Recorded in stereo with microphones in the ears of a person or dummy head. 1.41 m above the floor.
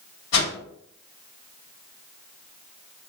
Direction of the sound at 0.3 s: 65° left (ahead or behind).